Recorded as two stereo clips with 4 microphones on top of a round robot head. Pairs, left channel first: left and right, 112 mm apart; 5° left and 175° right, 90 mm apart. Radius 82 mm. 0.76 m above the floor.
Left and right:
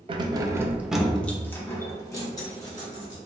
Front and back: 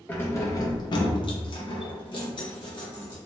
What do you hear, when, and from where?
0.1 s keys jangling: 65° right, 0.6 m; by 3.2 s 40° left, 1.6 m